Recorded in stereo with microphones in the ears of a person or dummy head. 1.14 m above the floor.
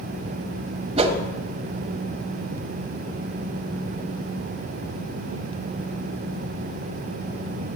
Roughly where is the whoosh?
Right.